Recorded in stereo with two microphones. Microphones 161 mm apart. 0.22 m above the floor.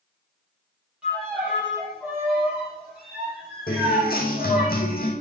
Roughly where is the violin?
Centre.